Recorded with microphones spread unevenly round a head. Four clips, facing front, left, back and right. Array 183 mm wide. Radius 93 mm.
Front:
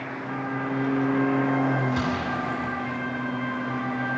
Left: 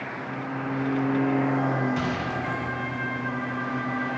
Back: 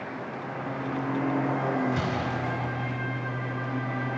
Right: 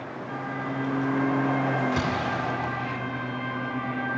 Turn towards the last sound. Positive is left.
turn(degrees=-65)